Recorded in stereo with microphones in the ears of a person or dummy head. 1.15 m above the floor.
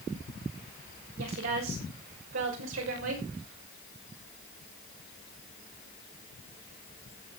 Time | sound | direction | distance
1.2 | a woman speaking | 60° right (ahead or behind) | 6 m